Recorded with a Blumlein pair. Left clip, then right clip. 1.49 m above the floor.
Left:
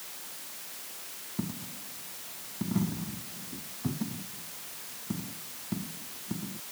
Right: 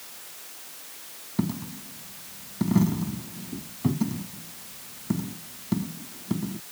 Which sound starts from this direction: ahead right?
A dropped coin, at 1.4 s.